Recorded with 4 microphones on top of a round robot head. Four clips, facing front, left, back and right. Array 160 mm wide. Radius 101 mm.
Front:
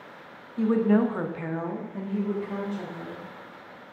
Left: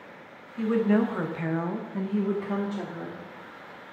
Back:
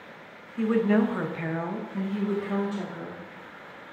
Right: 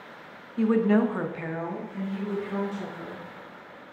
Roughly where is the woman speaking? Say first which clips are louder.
Right 2 dB, front 1 dB; right.